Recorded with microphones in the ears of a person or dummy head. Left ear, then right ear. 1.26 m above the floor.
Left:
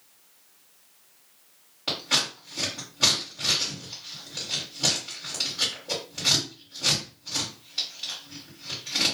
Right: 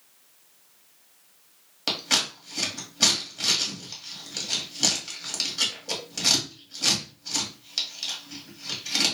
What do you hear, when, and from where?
1.9 s scissors: 80° right, 1.2 m